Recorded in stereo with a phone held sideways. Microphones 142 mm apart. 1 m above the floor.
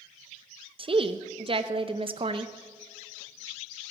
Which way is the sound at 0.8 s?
40° right (ahead or behind).